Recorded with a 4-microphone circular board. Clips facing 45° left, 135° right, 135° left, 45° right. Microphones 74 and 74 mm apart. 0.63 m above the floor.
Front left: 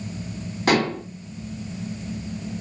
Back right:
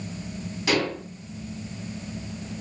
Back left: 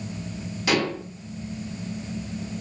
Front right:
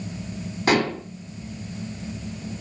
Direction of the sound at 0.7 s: 5° left.